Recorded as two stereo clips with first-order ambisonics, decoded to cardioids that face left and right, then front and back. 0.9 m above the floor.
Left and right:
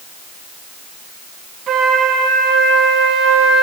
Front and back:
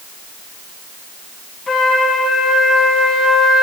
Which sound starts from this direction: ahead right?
A flute, at 1.7 s.